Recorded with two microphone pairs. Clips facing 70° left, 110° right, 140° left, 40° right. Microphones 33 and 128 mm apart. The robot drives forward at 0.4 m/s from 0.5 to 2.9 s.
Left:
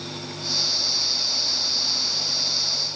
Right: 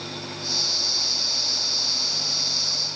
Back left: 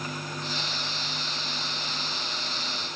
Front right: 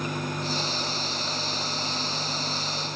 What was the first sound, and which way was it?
Only background noise.